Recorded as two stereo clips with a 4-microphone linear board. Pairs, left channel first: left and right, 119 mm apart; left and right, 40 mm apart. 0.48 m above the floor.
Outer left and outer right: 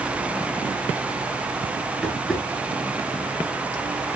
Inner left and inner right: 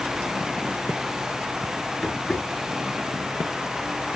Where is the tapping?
Centre (ahead or behind), 6.5 m.